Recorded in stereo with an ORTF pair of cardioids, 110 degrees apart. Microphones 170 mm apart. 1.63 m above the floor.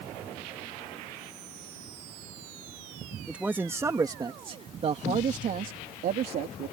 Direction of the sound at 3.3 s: 5° right.